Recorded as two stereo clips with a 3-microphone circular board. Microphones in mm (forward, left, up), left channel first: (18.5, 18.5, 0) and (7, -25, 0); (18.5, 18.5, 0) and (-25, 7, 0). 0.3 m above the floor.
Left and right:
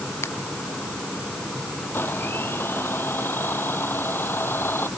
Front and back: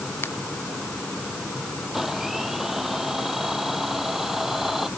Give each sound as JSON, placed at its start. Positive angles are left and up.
{"t": 0.2, "sound": "a finger snap", "azimuth_deg": 50}
{"t": 1.9, "sound": "a blender", "azimuth_deg": 115}